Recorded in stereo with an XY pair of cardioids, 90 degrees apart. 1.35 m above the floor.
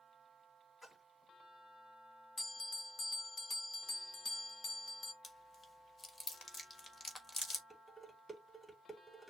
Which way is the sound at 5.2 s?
25° left.